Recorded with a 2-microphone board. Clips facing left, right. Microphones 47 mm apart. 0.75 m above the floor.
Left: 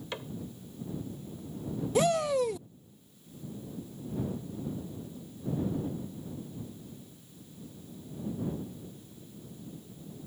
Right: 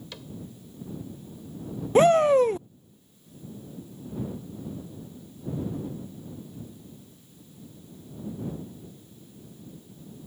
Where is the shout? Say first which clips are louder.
Right 9 dB; 40° right (ahead or behind).